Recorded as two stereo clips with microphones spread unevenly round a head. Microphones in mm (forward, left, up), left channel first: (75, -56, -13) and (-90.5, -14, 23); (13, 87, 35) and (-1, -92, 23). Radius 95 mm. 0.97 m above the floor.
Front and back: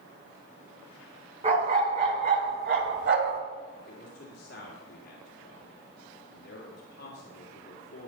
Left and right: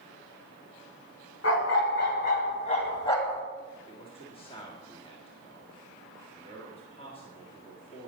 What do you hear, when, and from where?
1.4 s a dog barking: 110° left, 2 m; by 3.4 s 165° left, 1.5 m
3.9 s a man speaking: 25° left, 1.8 m